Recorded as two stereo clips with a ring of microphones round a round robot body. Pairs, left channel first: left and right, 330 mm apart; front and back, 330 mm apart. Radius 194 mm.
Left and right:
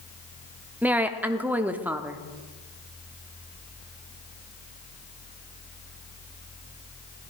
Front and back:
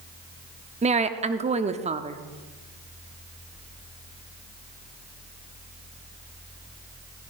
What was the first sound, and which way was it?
A woman speaking, 165° right.